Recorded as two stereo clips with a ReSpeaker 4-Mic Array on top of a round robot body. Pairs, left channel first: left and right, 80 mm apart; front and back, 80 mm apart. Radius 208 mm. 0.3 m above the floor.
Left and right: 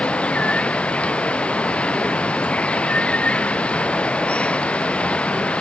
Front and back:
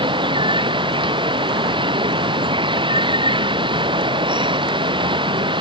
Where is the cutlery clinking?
No cutlery clinking in this recording.